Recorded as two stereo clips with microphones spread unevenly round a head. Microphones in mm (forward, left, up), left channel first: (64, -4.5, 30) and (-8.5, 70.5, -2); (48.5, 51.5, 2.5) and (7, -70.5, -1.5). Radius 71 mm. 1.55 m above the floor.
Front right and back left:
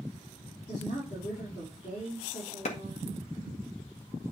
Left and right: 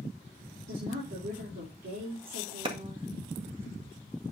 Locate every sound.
0.7 s a woman speaking: 100° right, 5 m
2.6 s a clap: 60° right, 1.6 m